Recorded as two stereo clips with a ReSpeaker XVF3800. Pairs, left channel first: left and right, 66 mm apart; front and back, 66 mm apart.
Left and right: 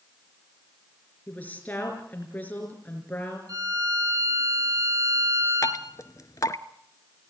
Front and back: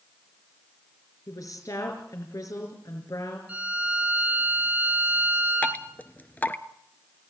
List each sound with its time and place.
1.3 s a woman speaking: 30° left, 4.5 m
3.5 s a violin: 110° right, 4 m
5.6 s dripping: 60° left, 1.0 m